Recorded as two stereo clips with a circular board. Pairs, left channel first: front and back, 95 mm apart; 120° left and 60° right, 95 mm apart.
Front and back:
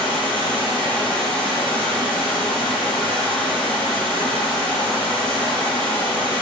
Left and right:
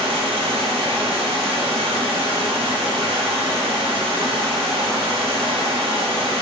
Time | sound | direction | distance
0.0 | running water | 75° right | 7.5 m